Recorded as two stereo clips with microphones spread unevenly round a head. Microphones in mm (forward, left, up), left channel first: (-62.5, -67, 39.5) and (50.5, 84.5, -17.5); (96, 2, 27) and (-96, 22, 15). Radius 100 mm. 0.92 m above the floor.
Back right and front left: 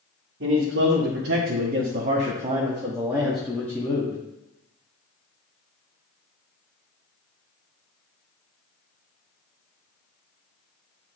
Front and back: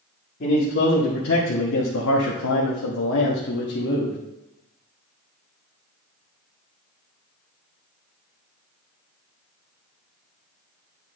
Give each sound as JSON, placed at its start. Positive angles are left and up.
{"t": 0.4, "sound": "a man speaking", "azimuth_deg": 35, "distance_m": 1.8}